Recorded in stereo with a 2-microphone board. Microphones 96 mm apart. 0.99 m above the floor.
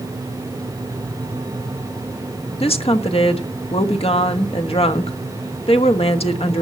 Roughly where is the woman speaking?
Left.